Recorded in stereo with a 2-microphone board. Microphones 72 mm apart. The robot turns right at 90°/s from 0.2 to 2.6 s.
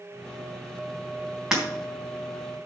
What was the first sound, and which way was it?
Breaking glass, 10° right (ahead or behind).